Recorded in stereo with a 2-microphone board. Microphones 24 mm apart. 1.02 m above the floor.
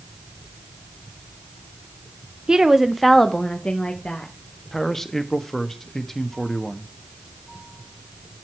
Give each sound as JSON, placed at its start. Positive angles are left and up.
{"t": 2.5, "sound": "a woman speaking", "side_deg": -35, "distance_m": 0.9}
{"t": 4.7, "sound": "a man speaking", "side_deg": 15, "distance_m": 1.1}